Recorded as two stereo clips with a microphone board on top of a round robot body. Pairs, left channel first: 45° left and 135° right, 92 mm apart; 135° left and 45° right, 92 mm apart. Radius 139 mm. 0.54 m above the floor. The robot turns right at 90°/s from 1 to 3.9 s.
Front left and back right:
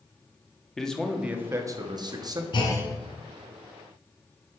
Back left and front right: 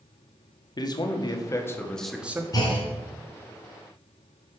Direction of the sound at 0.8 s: 130° left.